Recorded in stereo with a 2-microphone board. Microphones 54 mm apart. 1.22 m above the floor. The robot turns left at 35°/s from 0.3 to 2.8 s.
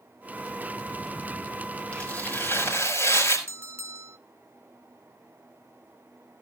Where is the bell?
50° right (ahead or behind), 0.6 m.